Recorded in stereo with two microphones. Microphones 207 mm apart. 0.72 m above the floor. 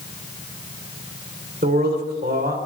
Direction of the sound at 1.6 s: 50° right (ahead or behind).